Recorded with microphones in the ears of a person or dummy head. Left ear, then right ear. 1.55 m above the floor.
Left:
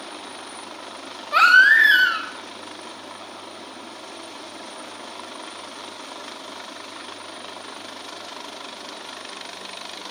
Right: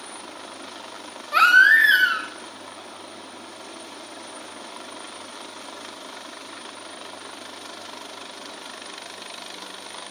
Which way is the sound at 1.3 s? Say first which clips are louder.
Left 1 dB; centre (ahead or behind).